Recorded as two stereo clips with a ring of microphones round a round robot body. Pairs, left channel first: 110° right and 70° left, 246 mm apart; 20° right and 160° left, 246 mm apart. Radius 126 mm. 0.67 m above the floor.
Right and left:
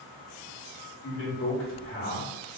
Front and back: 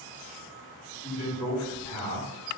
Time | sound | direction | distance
1.0 | a man speaking | 75° right | 1.4 m